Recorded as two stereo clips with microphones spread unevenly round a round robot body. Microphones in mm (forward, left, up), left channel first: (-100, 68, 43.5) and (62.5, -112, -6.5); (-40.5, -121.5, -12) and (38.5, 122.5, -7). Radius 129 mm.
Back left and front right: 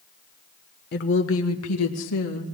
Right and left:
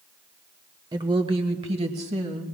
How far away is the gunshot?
I don't hear a gunshot.